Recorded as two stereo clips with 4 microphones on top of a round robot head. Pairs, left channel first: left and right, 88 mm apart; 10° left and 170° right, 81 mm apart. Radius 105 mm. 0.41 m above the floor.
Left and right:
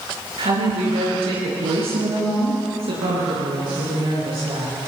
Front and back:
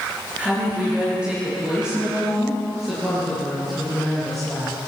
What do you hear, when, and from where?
0.4 s a woman speaking: 95° right, 8.5 m; by 4.8 s 75° right, 9 m